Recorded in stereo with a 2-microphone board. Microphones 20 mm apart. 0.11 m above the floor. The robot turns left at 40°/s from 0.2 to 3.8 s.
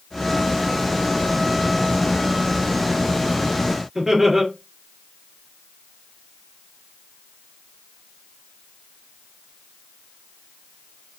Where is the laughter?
20° right (ahead or behind), 1.8 m.